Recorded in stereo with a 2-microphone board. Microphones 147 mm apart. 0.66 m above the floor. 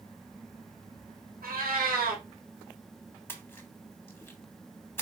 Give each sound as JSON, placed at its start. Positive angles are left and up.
{"t": 1.4, "sound": "a cat meowing", "side_deg": -80, "distance_m": 1.1}
{"t": 3.3, "sound": "a splash", "side_deg": 15, "distance_m": 0.9}